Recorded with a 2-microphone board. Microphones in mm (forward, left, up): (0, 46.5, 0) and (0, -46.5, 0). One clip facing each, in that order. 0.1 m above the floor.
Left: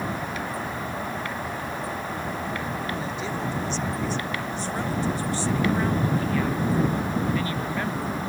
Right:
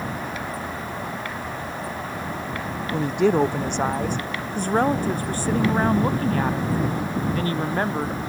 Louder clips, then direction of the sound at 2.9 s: Right 10 dB; 65° right (ahead or behind).